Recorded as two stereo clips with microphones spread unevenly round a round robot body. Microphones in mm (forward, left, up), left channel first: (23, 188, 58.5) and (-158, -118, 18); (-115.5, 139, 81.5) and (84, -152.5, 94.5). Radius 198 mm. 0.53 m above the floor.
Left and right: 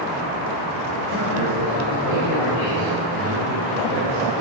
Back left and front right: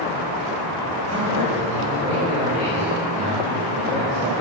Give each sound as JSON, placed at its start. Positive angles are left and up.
{"t": 1.0, "sound": "a man speaking", "azimuth_deg": 15, "distance_m": 3.0}